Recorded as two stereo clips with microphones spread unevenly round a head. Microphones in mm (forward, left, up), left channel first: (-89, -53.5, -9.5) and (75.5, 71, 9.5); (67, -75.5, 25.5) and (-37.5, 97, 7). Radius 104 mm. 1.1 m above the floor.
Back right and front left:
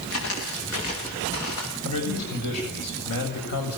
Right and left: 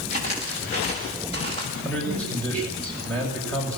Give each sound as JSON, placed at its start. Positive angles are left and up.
{"t": 0.1, "sound": "footsteps", "azimuth_deg": -120, "distance_m": 9.5}
{"t": 1.9, "sound": "a man speaking", "azimuth_deg": -145, "distance_m": 7.0}